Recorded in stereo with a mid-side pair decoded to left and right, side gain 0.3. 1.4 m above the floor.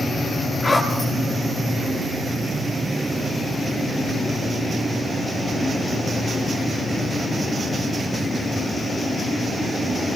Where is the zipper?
40° left, 9 m.